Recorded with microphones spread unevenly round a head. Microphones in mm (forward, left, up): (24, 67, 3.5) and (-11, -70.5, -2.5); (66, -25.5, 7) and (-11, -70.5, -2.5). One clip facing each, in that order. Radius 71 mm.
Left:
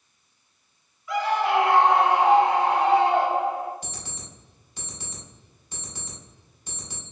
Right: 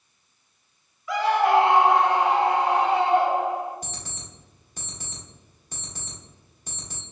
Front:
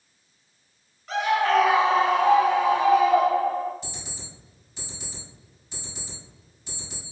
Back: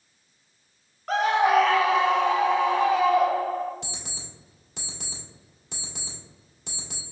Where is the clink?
I don't hear a clink.